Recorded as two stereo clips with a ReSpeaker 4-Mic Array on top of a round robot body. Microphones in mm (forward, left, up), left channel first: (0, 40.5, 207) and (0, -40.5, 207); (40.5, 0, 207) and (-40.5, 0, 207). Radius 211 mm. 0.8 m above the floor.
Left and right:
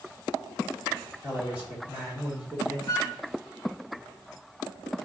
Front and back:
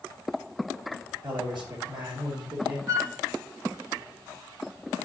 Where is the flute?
135° left, 1.4 m.